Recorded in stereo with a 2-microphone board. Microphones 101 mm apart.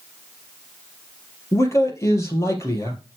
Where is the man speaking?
30° left (ahead or behind), 2.5 m.